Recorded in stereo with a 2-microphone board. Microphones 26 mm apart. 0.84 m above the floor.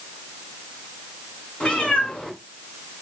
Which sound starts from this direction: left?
A cat meowing, at 1.6 s.